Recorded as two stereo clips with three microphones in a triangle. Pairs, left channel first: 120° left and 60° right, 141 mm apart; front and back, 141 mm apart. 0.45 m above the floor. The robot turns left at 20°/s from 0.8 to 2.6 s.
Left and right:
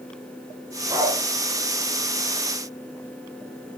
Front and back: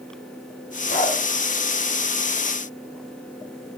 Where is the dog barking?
5° left, 4 m; by 1.2 s straight ahead, 4 m.